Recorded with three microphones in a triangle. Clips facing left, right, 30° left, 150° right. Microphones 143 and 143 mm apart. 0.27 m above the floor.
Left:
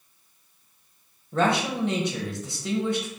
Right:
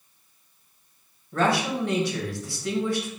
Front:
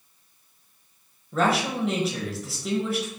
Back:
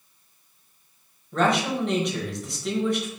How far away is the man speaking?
About 1.0 m.